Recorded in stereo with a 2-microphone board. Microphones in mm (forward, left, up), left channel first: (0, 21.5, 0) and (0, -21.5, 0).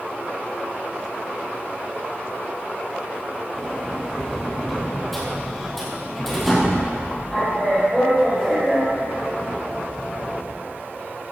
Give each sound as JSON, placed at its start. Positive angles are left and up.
{"t": 3.5, "sound": "a sliding door", "side_deg": 0, "distance_m": 4.0}